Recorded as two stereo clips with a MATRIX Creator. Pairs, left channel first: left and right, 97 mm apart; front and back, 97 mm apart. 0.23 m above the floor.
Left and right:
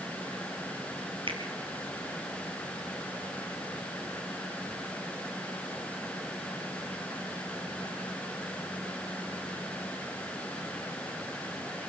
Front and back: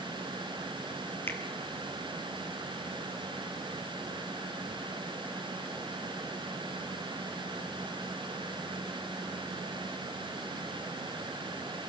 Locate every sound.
1.3 s a finger snap: 65° right, 4 m